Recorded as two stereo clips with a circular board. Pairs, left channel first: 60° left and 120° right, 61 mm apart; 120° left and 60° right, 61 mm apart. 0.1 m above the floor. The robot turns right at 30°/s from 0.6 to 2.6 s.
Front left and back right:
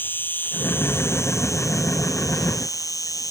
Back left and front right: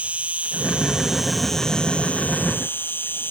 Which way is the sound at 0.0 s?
5° left.